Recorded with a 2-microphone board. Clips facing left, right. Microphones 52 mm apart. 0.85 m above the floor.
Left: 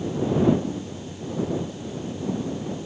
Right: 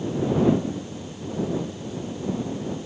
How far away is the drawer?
I don't hear a drawer.